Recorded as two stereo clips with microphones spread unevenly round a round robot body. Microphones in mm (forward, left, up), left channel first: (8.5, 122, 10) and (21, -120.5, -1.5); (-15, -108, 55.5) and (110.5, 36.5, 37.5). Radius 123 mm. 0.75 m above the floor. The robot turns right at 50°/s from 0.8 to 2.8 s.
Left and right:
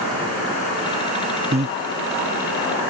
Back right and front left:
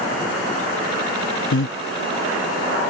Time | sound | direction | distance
1.5 | breathing | 150° right | ?